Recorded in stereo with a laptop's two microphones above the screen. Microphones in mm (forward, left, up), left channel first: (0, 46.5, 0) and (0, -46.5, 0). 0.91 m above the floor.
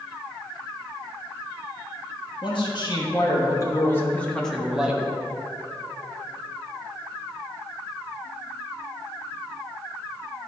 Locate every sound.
2.4 s a man speaking: 60° left (ahead or behind), 1.4 m; by 5.1 s 15° right (ahead or behind), 1.0 m